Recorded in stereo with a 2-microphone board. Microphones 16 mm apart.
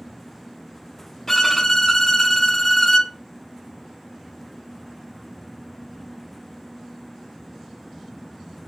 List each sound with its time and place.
1.3 s a violin: 25° left (ahead or behind), 0.6 m